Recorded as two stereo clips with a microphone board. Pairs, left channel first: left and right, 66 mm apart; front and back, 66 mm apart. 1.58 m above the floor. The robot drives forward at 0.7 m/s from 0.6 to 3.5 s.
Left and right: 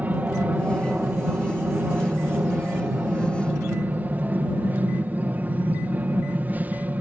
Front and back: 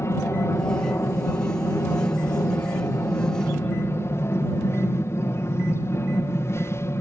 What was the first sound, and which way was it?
An aircraft, 30° right.